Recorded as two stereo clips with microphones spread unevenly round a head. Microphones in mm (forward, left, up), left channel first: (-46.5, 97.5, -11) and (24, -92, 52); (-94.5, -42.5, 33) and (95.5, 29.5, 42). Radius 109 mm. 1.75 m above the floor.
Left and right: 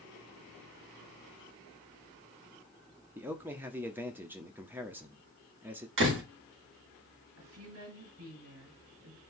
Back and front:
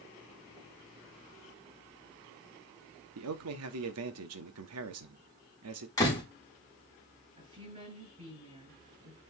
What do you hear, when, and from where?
3.1 s a man speaking: 10° left, 0.8 m
6.0 s a door slam: 85° right, 2.5 m
7.4 s a woman speaking: 40° right, 6.5 m